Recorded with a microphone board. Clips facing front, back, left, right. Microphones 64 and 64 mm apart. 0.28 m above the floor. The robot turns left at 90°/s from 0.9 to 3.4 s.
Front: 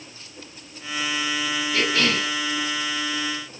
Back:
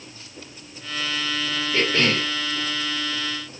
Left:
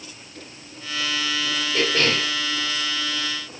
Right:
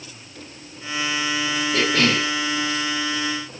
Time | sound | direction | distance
1.7 | a cough | 105° right | 3.5 m